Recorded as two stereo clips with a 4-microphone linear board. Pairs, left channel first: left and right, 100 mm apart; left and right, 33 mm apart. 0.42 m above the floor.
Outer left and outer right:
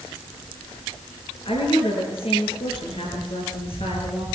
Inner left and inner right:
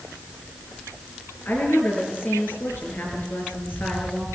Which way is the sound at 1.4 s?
70° left (ahead or behind).